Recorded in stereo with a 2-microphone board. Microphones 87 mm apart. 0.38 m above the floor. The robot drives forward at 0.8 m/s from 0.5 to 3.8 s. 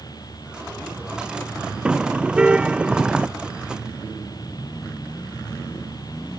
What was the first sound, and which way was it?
A car horn, 10° right (ahead or behind).